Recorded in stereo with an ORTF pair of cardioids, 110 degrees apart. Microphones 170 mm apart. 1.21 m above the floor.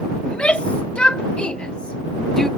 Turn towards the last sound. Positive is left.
turn(degrees=5)